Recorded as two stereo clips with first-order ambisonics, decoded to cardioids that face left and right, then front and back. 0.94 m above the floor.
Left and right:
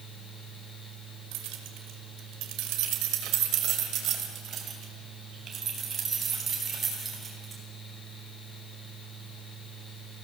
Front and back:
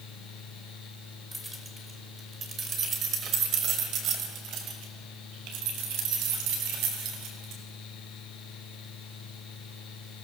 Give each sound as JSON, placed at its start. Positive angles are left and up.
{"t": 1.3, "sound": "keys jangling", "azimuth_deg": -95, "distance_m": 2.0}